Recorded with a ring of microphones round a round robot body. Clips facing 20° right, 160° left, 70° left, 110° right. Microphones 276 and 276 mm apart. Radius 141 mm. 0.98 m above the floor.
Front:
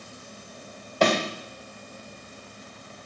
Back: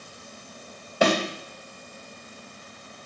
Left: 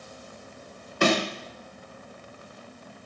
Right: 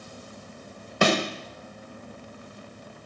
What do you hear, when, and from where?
1.0 s a thud: 125° right, 1.2 m